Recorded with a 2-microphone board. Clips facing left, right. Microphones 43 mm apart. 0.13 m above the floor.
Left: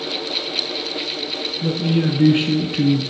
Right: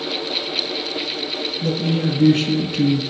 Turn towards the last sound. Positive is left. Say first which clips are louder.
# left 2 dB
turn(degrees=20)  # may be behind; listen again after turning